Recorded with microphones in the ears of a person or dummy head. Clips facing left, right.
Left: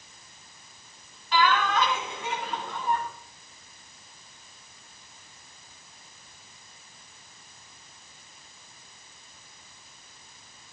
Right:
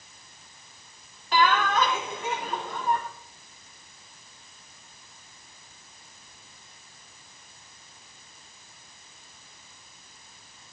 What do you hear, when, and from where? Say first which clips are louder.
1.3 s laughter: right 1 dB; 40° right (ahead or behind), 4.5 m